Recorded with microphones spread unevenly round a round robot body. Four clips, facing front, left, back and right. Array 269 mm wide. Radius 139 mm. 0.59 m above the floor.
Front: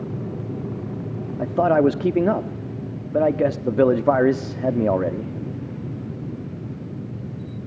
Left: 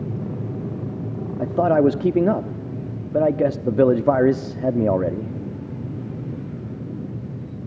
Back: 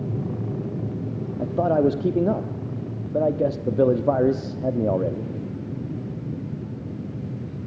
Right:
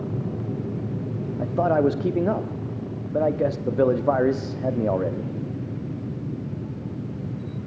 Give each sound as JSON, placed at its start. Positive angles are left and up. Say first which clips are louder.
{"t": 1.4, "sound": "a man speaking", "louder": "left 4 dB, front 3 dB", "azimuth_deg": 55, "distance_m": 0.8}